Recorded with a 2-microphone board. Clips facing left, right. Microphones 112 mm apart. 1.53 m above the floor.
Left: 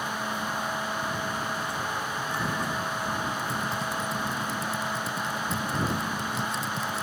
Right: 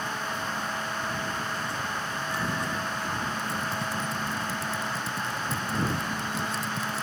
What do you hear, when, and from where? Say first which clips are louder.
3.4 s typing on a keyboard: left 1 dB; centre (ahead or behind)